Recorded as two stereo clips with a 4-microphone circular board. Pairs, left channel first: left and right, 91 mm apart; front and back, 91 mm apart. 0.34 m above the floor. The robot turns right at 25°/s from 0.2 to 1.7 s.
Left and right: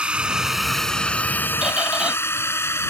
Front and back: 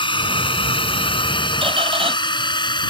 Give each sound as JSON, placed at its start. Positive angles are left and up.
{"t": 0.0, "sound": "a drone", "azimuth_deg": -15}
{"t": 1.6, "sound": "a squeak", "azimuth_deg": -170}